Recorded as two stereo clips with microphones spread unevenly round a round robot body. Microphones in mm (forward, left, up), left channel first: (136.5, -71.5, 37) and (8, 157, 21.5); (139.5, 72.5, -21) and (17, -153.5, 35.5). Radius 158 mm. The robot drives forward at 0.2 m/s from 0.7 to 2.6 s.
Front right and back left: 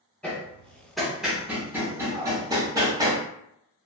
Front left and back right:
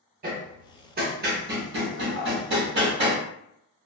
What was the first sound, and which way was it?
Hammering, 150° right.